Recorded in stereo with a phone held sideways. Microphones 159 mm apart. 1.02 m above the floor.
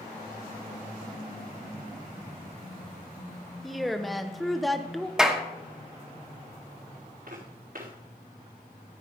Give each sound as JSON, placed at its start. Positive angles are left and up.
{"t": 3.6, "sound": "a woman speaking", "side_deg": 0, "distance_m": 0.7}
{"t": 5.2, "sound": "a clap", "side_deg": -5, "distance_m": 1.1}
{"t": 7.3, "sound": "footsteps", "side_deg": -75, "distance_m": 3.5}